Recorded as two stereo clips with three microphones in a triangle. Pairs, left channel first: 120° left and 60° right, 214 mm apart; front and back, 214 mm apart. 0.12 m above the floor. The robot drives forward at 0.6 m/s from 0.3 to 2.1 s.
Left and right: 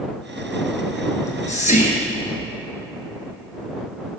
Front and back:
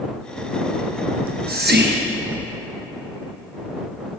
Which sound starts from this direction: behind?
Whispering, at 1.1 s.